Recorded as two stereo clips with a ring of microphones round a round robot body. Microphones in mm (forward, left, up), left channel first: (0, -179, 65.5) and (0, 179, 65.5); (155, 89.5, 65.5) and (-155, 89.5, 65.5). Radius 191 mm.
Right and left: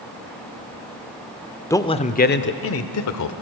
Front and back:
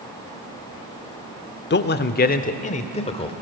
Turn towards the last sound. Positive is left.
turn(degrees=-70)